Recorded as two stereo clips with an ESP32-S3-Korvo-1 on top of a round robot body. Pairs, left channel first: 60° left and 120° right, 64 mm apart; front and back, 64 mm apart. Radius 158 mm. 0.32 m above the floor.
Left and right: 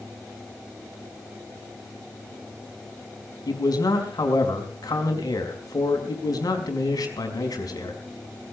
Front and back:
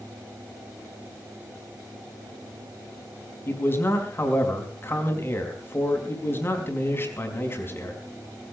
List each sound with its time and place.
3.5 s a man speaking: 50° left, 4.5 m